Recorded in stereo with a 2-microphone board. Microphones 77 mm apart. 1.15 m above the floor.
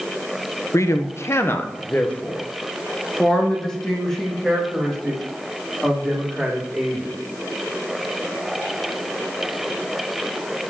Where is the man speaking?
45° left (ahead or behind), 0.6 m; by 7.2 s centre (ahead or behind), 3.5 m.